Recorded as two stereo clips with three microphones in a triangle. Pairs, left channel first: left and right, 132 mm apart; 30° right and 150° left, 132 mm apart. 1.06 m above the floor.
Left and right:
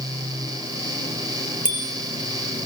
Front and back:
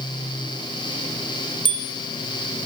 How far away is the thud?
No thud in this recording.